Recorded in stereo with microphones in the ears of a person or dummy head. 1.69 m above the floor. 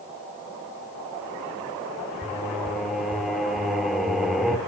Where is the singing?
Centre (ahead or behind), 2.5 m.